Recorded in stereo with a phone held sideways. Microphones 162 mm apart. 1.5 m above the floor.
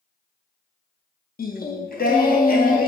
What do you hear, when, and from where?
1.4 s singing: 75° left (ahead or behind), 0.5 m